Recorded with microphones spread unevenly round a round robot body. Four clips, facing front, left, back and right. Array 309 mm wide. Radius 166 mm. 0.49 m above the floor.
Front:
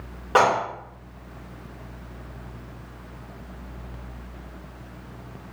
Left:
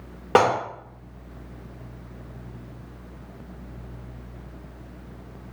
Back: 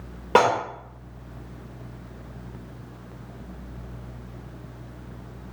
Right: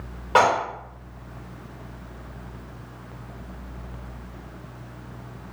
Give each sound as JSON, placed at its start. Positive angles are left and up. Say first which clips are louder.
{"t": 0.3, "sound": "dishes clattering", "louder": "even, even", "azimuth_deg": 125, "distance_m": 0.7}